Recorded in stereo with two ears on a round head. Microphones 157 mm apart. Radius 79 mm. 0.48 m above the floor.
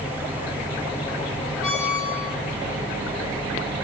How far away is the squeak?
About 6.5 m.